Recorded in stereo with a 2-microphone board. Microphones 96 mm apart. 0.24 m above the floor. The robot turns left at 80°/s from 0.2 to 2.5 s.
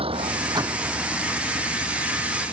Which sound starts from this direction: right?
A vehicle, at 0.0 s.